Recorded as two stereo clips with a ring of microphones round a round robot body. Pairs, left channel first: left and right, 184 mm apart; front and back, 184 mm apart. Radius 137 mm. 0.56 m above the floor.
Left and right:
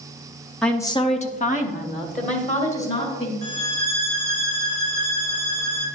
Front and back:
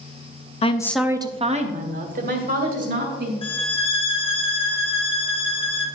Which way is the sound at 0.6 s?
5° left.